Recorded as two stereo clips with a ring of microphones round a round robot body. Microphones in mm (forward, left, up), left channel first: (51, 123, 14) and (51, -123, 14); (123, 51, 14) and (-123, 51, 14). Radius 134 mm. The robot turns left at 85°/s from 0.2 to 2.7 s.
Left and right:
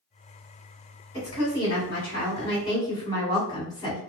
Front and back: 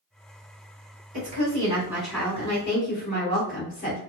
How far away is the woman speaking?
About 2.0 m.